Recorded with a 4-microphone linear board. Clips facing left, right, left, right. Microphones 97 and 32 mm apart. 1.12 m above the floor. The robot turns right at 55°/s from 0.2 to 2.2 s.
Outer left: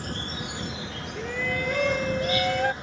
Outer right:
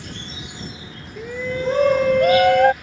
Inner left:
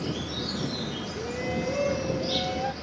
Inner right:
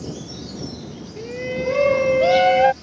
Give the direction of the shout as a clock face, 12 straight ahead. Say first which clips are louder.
Outer right 5 dB, inner right 6 dB; 6 o'clock.